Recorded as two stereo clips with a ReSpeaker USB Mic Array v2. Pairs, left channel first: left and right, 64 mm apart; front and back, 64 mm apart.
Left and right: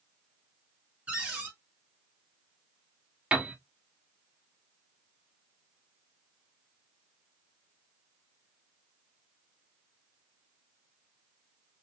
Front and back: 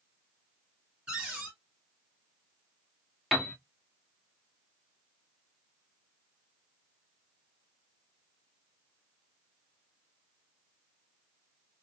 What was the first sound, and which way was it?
A cupboard door, 130° right.